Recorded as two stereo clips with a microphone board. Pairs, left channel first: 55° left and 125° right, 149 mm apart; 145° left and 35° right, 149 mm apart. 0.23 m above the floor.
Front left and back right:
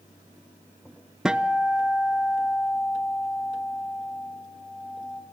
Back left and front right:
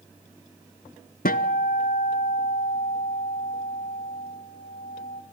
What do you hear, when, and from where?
1.2 s a guitar: 150° left, 0.6 m